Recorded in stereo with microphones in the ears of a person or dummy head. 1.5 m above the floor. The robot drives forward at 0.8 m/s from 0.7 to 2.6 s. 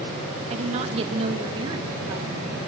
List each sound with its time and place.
0.5 s a woman speaking: 35° right (ahead or behind), 1.7 m; by 2.6 s 20° right (ahead or behind), 3 m